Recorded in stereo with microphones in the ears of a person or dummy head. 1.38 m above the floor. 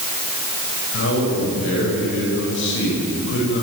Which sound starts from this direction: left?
A man speaking, at 0.9 s.